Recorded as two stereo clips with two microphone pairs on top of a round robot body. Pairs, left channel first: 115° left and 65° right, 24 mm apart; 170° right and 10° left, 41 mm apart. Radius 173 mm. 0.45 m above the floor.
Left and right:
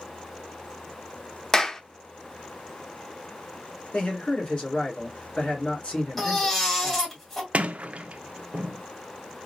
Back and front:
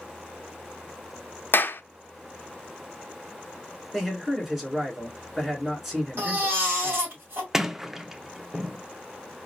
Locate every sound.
1.5 s a clap: 175° right, 0.8 m
3.9 s a man speaking: 85° left, 2.5 m
6.2 s a baby crying: 45° left, 2.5 m
7.5 s a sliding door: 75° right, 0.5 m